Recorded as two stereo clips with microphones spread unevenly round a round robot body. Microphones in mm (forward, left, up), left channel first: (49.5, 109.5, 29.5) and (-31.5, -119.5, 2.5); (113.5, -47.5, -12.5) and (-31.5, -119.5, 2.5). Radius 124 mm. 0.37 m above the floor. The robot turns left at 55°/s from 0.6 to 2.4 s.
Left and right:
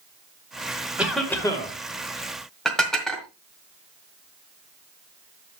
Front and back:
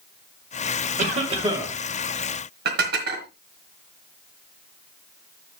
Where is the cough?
175° left, 1.7 m; by 1.7 s 135° left, 1.7 m.